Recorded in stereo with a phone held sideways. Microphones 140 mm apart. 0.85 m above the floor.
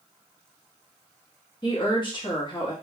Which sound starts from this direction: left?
A woman speaking, at 1.6 s.